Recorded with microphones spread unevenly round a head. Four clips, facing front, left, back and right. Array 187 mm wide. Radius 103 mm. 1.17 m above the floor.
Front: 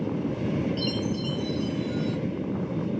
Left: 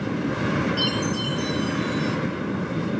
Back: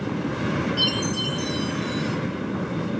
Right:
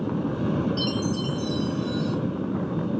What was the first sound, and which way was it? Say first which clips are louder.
A chime: left 1 dB, back 2 dB; 100° left.